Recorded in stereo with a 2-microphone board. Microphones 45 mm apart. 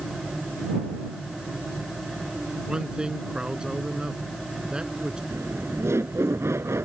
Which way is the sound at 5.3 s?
80° right.